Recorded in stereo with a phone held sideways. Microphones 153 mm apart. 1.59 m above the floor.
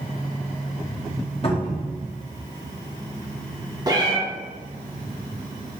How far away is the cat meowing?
About 0.8 m.